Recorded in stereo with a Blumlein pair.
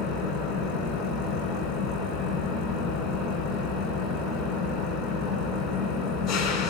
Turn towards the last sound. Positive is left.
turn(degrees=25)